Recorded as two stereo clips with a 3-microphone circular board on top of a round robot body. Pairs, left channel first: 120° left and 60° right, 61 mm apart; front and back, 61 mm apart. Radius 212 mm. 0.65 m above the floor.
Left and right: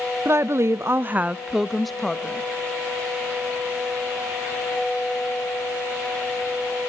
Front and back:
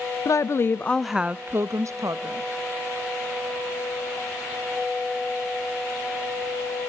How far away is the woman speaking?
About 0.7 m.